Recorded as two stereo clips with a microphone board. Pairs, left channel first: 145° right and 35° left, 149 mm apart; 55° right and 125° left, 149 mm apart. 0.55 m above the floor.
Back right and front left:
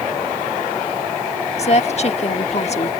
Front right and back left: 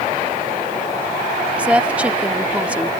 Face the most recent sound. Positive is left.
turn(degrees=-155)